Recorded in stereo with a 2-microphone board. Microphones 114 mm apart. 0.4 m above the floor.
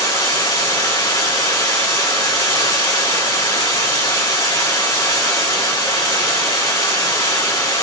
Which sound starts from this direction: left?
Running water, at 0.0 s.